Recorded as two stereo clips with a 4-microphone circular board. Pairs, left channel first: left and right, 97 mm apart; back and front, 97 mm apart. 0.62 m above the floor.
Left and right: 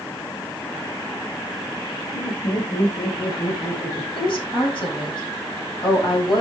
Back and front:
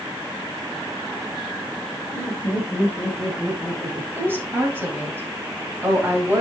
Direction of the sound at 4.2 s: 65° left.